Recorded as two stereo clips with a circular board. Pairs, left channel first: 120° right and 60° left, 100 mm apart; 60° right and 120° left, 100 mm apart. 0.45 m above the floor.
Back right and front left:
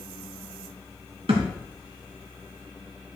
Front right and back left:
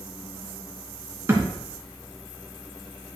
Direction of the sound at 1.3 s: 55° left.